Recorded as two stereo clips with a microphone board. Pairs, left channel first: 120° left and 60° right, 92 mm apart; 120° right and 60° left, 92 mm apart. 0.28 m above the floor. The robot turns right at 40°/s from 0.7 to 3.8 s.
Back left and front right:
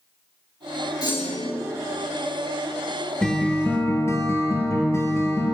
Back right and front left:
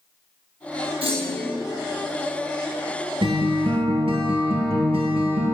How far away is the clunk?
About 6 m.